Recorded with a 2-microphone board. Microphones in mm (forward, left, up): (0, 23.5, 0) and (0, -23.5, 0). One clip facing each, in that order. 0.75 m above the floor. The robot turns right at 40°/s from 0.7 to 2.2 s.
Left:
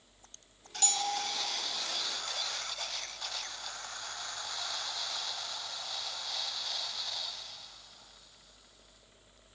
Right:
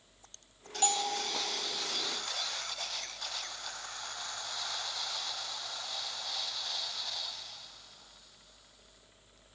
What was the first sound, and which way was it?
A bell, 20° right (ahead or behind).